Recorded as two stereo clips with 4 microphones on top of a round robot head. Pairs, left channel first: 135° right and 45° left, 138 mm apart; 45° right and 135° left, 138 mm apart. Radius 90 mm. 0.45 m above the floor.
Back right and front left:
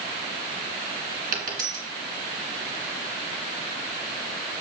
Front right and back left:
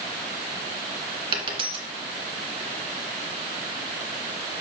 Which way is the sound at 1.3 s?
80° left.